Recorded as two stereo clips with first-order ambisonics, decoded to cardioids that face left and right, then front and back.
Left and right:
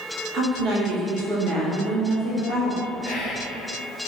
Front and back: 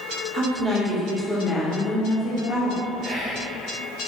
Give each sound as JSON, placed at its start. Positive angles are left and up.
{"t": 0.3, "sound": "a woman speaking", "azimuth_deg": -130, "distance_m": 1.3}
{"t": 3.0, "sound": "whispering", "azimuth_deg": 150, "distance_m": 1.4}